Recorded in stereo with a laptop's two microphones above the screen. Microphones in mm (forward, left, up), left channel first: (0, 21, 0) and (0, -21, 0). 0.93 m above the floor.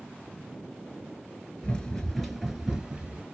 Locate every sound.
1.6 s running footsteps: 20° left (ahead or behind), 1.0 m; by 3.2 s 30° right (ahead or behind), 1.1 m